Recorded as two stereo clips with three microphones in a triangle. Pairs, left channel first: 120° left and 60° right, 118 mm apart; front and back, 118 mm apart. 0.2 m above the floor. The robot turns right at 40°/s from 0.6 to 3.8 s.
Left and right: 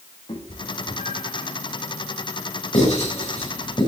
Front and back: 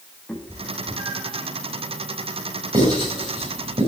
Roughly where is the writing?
Behind left.